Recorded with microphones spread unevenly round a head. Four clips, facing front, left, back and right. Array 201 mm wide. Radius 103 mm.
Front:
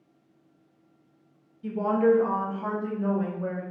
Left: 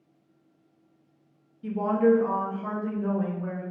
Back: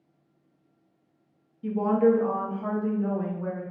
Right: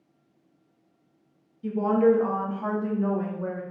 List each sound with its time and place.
1.6 s a woman speaking: 160° left, 0.6 m; by 3.6 s 65° right, 1.0 m